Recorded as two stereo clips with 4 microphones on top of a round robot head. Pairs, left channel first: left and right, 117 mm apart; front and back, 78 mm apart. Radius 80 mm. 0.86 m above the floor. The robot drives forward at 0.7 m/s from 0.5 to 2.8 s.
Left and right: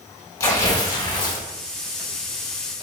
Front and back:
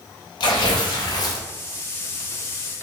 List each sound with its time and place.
0.4 s tearing paper: 25° left, 1.6 m; by 1.4 s 45° left, 1.0 m